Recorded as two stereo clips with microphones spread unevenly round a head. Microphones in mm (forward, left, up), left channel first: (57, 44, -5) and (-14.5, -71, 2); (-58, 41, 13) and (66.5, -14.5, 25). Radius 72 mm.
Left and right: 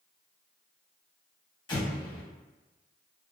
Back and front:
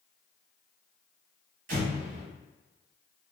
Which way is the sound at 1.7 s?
Straight ahead.